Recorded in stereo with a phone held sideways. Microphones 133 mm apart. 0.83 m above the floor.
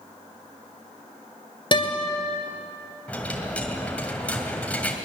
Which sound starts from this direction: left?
A guitar, at 1.7 s.